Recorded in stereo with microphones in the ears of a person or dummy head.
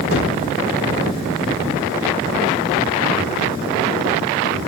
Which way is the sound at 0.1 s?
70° left (ahead or behind).